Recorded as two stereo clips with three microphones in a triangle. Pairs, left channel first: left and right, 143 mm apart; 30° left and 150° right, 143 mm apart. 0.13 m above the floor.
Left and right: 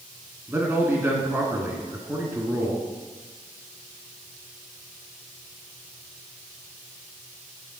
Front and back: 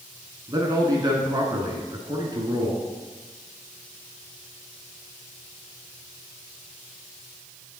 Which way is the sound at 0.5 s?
140° right.